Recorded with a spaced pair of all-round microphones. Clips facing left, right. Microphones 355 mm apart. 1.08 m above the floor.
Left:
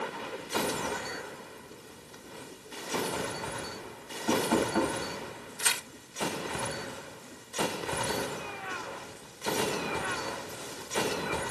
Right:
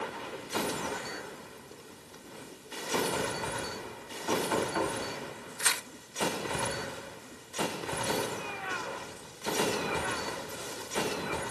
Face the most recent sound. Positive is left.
turn(degrees=45)  # may be behind; listen again after turning